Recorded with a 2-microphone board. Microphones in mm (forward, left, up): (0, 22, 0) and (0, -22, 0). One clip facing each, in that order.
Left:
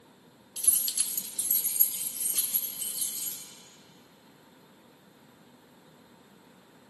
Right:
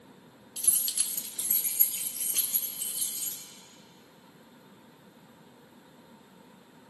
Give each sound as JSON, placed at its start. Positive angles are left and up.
{"t": 0.6, "sound": "keys jangling", "side_deg": 10, "distance_m": 0.8}